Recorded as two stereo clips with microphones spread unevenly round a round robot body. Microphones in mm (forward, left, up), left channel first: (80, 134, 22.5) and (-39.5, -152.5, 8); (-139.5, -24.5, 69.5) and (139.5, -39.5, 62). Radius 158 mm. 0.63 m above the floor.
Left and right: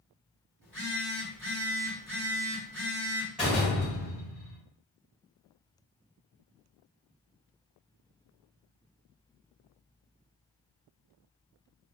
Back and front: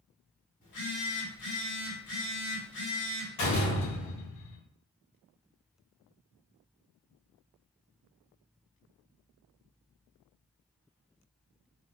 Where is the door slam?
160° left, 1.6 m.